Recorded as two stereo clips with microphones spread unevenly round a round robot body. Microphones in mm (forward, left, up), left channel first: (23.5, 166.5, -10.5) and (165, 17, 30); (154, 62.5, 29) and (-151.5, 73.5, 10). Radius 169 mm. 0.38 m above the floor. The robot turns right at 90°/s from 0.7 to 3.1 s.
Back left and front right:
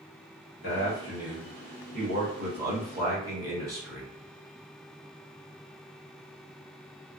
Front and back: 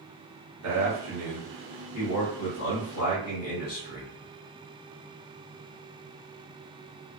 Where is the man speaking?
175° left, 1.7 m; by 4.1 s 30° left, 1.7 m.